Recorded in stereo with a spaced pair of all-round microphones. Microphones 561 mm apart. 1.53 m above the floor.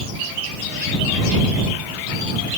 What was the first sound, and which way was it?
Only background noise.